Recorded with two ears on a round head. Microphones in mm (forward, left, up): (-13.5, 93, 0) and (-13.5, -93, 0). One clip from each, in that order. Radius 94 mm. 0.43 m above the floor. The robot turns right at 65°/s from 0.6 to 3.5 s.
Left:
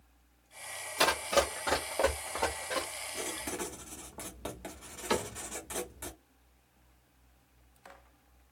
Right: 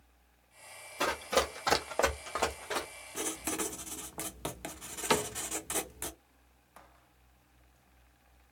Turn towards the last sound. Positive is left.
turn(degrees=-25)  # may be behind; listen again after turning